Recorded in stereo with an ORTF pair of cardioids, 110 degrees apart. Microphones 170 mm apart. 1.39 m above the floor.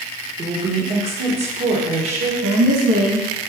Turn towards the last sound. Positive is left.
turn(degrees=-65)